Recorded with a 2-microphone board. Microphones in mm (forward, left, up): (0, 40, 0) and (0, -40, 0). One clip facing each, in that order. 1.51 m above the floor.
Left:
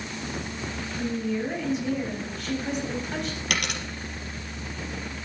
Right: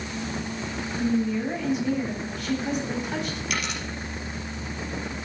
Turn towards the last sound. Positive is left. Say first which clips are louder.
# left 3 dB
turn(degrees=65)  # may be behind; listen again after turning